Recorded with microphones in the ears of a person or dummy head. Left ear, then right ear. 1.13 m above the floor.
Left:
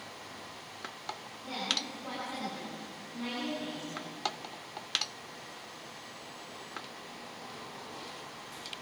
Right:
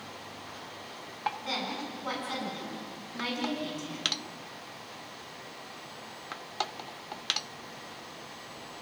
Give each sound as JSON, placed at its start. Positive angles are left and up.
{"t": 1.4, "sound": "a woman speaking", "side_deg": -70, "distance_m": 10.0}